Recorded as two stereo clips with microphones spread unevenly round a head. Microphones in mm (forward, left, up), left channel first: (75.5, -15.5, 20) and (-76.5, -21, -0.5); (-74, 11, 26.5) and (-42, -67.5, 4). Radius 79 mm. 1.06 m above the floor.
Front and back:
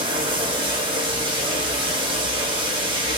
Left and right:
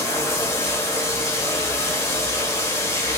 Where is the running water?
125° left, 1.0 m.